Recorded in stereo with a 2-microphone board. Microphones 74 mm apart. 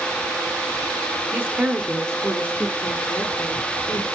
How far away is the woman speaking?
About 1.1 m.